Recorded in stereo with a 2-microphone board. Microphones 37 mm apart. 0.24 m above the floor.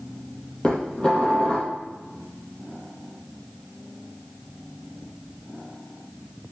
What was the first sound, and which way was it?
Dishes clattering, 20° left (ahead or behind).